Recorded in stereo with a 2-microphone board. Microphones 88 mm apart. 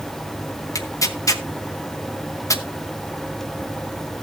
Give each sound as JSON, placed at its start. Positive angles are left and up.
{"t": 0.8, "sound": "tearing paper", "side_deg": 35, "distance_m": 1.0}